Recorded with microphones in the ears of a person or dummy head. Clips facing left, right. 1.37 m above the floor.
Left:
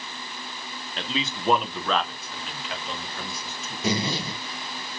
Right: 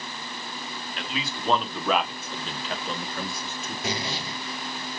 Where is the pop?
I don't hear a pop.